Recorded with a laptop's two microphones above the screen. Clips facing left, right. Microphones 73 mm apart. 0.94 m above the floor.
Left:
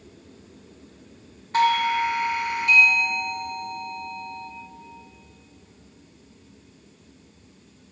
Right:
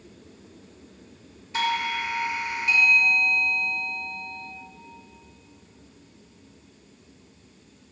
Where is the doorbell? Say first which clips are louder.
Left 6 dB; 50° left (ahead or behind), 1.1 m.